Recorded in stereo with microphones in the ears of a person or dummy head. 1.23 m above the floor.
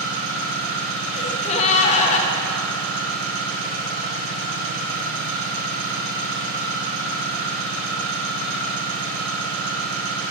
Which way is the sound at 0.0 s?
85° right.